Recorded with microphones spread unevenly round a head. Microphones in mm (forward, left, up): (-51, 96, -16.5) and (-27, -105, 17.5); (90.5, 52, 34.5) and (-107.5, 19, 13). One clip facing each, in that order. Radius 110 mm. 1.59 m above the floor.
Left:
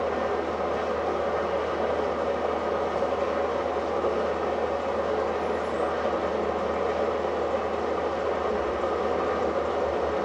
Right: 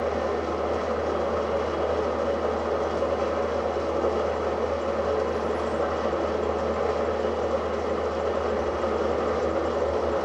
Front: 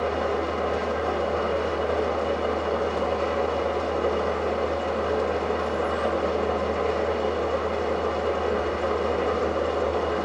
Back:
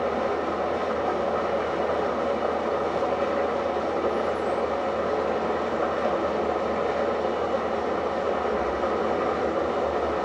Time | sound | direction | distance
0.0 | an engine running | 15° right | 1.4 m